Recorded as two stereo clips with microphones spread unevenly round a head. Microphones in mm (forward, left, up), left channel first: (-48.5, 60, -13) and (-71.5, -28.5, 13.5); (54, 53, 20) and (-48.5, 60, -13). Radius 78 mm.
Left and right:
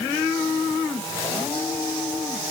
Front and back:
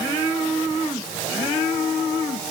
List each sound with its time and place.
Only background noise.